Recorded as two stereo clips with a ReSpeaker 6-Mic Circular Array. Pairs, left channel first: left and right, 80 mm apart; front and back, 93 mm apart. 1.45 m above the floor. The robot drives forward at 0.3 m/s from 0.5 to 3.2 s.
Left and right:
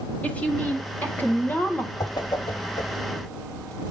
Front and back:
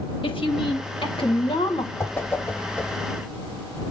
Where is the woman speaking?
20° left, 1.5 m; by 1.9 s 25° left, 1.2 m.